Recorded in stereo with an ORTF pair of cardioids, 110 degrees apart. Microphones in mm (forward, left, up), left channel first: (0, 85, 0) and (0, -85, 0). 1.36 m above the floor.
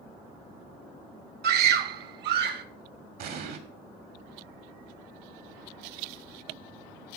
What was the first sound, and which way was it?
A scream, 65° right.